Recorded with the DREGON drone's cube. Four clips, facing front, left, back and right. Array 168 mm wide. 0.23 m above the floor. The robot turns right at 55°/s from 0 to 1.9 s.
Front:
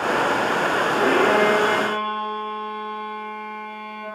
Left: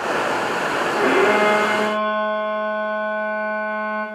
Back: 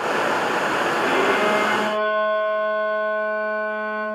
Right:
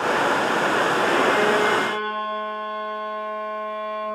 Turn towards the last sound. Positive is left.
turn(degrees=110)